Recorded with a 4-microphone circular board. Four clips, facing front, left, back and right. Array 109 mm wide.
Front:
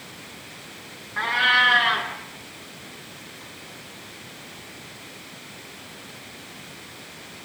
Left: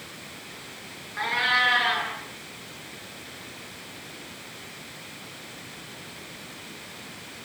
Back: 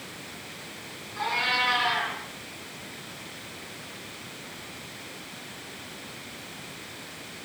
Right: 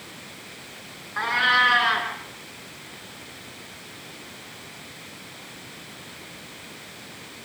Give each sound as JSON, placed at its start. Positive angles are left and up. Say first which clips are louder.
{"t": 1.2, "sound": "a cat meowing", "louder": "right 4 dB, front 6 dB", "azimuth_deg": -65, "distance_m": 7.5}